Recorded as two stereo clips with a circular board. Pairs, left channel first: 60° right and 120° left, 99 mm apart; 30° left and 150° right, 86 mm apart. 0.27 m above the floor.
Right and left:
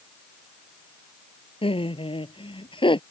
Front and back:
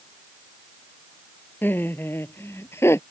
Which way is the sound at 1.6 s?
35° right.